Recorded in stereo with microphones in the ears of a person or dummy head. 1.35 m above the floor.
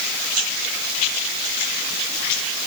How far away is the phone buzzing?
I don't hear a phone buzzing.